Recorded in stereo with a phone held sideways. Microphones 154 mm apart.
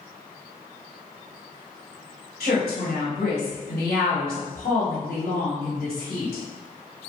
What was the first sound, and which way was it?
A woman speaking, 85° left.